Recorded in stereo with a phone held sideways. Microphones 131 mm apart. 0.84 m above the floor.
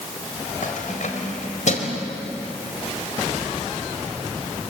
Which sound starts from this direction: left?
Keys jangling, at 0.6 s.